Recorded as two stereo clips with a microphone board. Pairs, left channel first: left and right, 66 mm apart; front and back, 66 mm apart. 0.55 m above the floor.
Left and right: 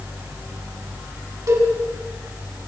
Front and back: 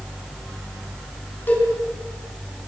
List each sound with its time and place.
1.5 s a cowbell: 55° right, 5.5 m